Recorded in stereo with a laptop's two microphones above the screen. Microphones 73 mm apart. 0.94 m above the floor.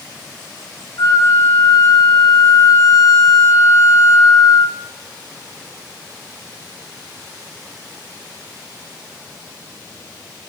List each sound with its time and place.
1.0 s a flute: 65° left (ahead or behind), 1.8 m